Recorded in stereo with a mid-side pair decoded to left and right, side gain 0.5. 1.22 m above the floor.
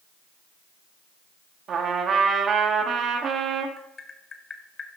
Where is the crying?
I don't hear crying.